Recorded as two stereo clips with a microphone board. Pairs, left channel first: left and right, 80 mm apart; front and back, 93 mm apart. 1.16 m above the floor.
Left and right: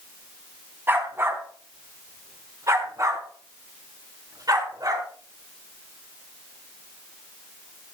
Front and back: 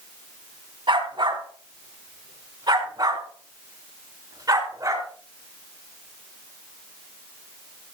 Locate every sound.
0.9 s a dog barking: 150° right, 3 m; by 5.1 s 130° right, 4.5 m